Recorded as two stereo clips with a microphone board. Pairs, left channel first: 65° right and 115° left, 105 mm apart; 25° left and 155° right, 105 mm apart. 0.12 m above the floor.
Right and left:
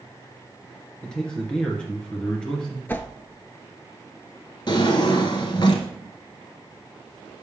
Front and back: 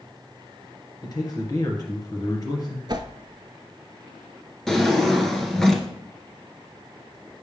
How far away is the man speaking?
About 1.9 m.